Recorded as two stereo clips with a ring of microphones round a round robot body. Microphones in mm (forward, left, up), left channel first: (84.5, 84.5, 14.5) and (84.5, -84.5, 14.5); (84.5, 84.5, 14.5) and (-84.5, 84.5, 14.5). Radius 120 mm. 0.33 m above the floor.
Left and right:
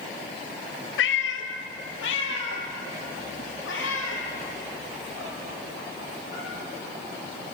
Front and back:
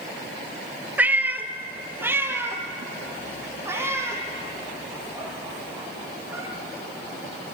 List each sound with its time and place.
1.0 s a cat meowing: 100° left, 1.3 m; by 6.5 s 105° left, 5 m